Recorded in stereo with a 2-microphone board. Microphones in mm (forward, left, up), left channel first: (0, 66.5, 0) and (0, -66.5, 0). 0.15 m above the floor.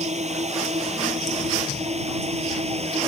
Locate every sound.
0.0 s a drone: 55° right (ahead or behind); by 3.1 s 50° right (ahead or behind)